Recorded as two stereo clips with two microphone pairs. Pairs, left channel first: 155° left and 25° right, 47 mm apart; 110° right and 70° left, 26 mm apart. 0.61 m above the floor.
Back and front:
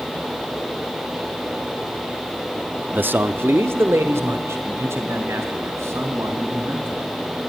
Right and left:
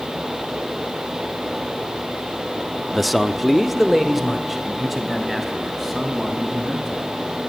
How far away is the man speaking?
About 0.8 m.